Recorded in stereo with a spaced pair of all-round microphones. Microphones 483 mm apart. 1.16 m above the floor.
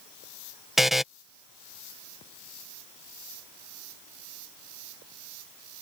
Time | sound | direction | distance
0.8 | a buzzer | centre (ahead or behind) | ?